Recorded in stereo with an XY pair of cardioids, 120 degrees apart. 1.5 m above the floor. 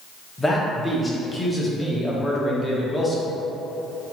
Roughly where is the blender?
No blender in this recording.